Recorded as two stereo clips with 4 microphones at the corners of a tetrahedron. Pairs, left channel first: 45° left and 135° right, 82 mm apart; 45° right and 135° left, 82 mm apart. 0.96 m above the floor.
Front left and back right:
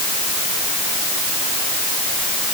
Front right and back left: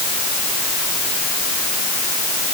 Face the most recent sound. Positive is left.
No sound to turn to.